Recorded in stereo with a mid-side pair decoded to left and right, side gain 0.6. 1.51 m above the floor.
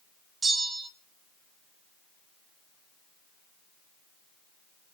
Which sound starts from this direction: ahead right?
A bell, at 0.4 s.